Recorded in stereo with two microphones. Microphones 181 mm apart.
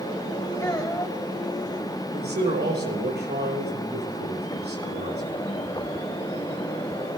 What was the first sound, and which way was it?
A child speaking, 20° left (ahead or behind).